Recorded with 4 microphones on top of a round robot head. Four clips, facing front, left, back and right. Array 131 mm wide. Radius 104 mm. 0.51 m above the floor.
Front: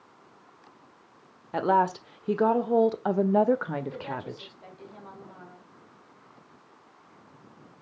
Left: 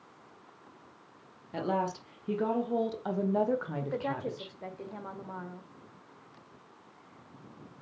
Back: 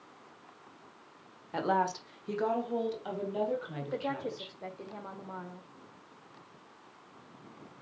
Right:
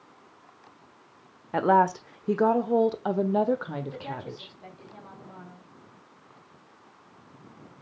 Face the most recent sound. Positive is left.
turn(degrees=120)